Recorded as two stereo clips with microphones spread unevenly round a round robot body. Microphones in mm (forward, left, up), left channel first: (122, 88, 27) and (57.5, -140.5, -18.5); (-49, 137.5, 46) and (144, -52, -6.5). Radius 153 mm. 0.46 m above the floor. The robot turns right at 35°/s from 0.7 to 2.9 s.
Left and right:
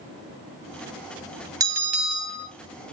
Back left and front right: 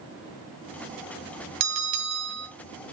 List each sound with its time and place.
1.6 s a bell: 35° right, 2.5 m; by 2.5 s 5° right, 2.5 m